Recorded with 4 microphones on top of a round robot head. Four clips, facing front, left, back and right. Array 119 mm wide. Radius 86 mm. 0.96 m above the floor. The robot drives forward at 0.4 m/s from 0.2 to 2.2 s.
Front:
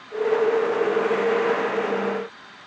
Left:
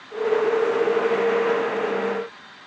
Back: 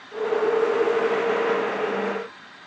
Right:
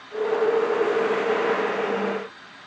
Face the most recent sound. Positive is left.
No sound to turn to.